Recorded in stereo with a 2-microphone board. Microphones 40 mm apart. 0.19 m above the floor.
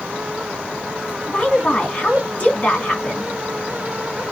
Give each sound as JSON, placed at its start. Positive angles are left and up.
{"t": 1.3, "sound": "a woman speaking", "side_deg": 35, "distance_m": 1.7}